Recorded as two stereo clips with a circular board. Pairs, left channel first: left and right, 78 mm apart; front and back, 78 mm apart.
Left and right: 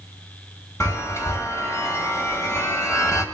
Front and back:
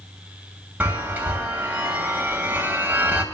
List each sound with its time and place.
0.8 s a chime: 125° left, 1.9 m